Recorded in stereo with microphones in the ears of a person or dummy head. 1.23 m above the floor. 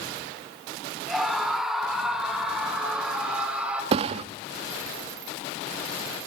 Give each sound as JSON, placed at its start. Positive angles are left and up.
{"t": 1.1, "sound": "a scream", "side_deg": 0, "distance_m": 4.5}
{"t": 3.9, "sound": "a thud", "side_deg": -40, "distance_m": 0.8}